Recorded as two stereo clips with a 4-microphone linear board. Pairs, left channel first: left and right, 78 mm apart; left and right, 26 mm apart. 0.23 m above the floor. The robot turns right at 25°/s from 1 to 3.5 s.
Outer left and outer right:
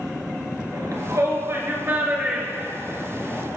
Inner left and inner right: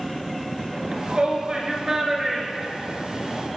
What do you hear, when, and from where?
0.7 s a shout: 50° right (ahead or behind), 3.5 m; by 3.4 s 10° left (ahead or behind), 3.5 m